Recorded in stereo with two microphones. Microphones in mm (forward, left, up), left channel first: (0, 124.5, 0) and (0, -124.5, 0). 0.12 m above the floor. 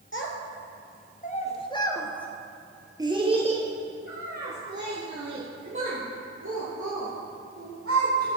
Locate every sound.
0.1 s a child speaking: 55° left (ahead or behind), 1.8 m; by 8.4 s 65° right (ahead or behind), 4 m